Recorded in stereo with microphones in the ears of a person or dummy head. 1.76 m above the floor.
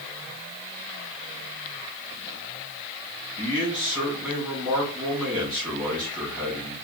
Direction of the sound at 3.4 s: Centre (ahead or behind).